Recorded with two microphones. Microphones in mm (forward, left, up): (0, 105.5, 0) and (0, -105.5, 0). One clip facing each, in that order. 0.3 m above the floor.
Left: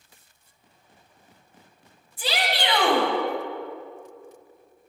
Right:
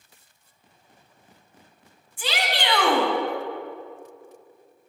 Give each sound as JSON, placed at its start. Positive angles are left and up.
{"t": 2.2, "sound": "a shout", "side_deg": 40, "distance_m": 2.5}